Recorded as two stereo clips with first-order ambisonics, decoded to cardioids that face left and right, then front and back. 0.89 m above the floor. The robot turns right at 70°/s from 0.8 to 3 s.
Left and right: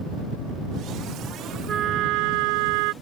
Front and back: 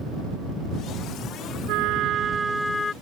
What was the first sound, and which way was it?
A trumpet, 155° right.